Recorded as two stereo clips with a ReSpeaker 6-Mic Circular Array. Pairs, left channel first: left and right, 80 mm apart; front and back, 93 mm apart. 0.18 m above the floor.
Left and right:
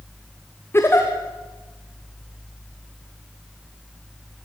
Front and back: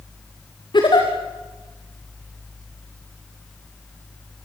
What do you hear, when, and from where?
0.7 s a giggle: 30° left, 4 m